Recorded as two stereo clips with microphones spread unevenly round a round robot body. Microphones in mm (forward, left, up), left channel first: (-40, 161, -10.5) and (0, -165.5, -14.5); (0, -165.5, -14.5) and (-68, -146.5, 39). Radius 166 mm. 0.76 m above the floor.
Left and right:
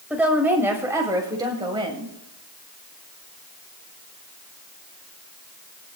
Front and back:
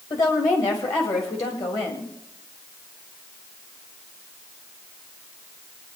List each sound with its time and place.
0.1 s a woman speaking: 5° left, 4 m; by 2.1 s 10° right, 4.5 m